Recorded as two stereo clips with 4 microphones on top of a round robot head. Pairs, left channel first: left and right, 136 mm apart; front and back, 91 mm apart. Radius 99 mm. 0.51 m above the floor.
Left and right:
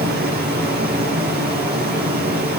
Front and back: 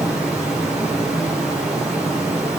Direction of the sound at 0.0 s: 95° right.